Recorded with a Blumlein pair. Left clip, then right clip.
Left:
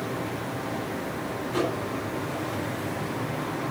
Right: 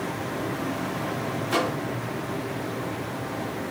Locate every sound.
1.5 s a microwave: 45° right, 1.9 m